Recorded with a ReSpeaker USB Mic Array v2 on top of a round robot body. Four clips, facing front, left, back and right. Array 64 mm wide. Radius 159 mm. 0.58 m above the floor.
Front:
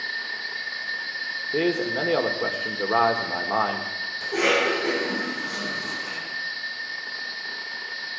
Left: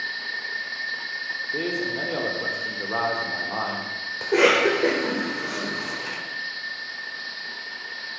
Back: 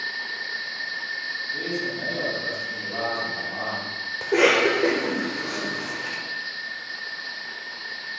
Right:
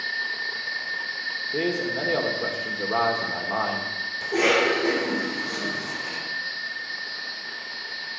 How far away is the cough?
About 3.5 m.